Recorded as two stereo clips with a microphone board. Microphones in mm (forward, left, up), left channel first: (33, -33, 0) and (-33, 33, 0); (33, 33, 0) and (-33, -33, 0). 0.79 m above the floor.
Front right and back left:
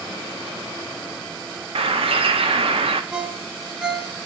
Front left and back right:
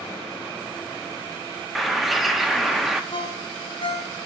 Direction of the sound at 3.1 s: 55° left.